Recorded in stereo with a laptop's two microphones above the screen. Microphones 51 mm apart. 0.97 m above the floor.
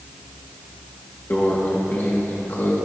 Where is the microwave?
40° left (ahead or behind), 1.7 m.